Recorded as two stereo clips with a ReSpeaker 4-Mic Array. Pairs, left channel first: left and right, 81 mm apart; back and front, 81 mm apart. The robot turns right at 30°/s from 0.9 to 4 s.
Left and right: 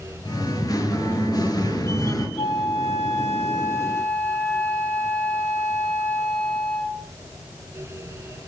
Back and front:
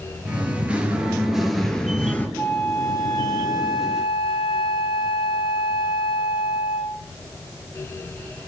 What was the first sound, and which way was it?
Singing, 70° left.